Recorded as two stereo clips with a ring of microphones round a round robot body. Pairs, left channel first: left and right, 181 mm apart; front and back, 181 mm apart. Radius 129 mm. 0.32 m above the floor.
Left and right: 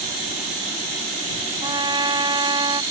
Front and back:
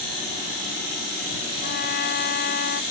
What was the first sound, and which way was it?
A trumpet, 30° right.